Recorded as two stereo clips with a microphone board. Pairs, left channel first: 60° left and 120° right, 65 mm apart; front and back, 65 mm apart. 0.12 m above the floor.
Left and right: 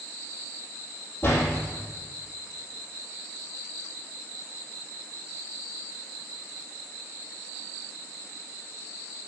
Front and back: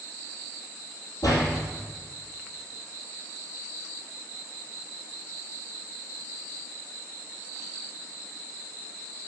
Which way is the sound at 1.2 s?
10° left.